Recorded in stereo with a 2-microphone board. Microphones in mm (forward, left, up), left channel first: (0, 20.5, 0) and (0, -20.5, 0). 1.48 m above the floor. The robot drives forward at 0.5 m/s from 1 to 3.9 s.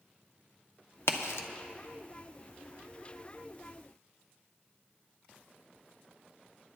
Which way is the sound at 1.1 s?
80° left.